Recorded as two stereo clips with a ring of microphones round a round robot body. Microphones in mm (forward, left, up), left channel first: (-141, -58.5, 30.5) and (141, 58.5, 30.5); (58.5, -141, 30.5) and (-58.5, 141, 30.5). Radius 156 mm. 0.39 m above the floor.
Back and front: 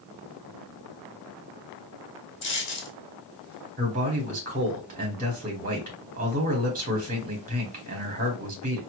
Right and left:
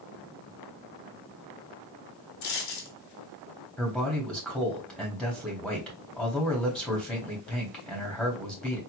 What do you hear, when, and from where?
2.4 s a dropped coin: 105° right, 1.8 m
3.8 s a man speaking: 20° left, 1.3 m